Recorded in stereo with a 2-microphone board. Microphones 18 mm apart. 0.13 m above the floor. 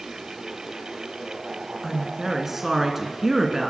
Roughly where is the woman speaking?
Centre.